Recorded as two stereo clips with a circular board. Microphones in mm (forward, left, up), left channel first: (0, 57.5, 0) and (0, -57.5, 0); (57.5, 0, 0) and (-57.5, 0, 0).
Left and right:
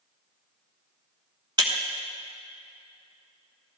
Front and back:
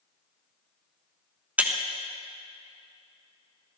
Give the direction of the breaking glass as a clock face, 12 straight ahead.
4 o'clock.